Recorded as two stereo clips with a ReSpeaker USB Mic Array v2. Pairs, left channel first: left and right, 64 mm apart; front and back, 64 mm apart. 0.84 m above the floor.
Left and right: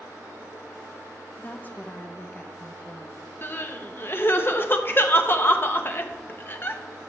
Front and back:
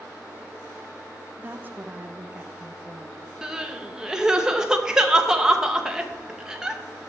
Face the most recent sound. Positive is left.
turn(degrees=105)